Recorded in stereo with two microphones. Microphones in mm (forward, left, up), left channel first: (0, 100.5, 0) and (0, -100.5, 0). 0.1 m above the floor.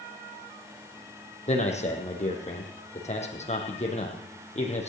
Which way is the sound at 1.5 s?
30° left (ahead or behind).